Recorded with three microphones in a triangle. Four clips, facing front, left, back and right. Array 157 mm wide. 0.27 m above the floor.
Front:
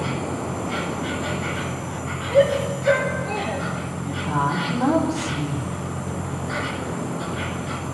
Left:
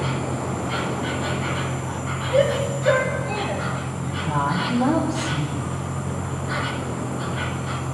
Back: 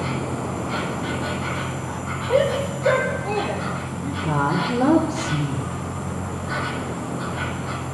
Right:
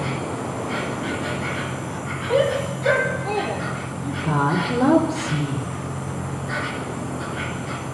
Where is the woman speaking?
155° right, 5.5 m.